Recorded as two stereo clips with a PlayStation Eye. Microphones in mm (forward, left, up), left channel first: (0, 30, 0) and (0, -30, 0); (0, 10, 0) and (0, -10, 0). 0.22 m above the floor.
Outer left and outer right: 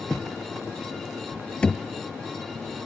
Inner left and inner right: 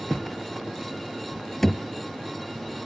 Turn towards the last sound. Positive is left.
turn(degrees=20)  # may be behind; listen again after turning